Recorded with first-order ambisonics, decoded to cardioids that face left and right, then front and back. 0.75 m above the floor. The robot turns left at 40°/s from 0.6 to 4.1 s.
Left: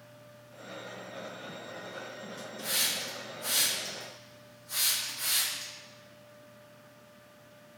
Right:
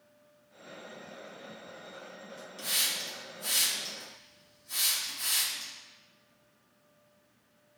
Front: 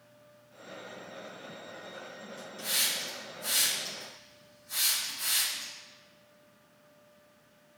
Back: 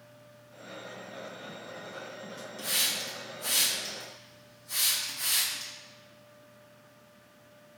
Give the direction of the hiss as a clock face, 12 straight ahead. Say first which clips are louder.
Even, back 1 dB; 4 o'clock.